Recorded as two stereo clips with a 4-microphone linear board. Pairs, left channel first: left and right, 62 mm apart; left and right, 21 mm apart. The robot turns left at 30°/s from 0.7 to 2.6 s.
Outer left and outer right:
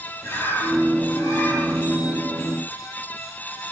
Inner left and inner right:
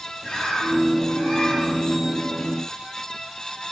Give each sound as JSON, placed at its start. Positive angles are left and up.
{"t": 0.2, "sound": "a bird", "azimuth_deg": 140, "distance_m": 10.0}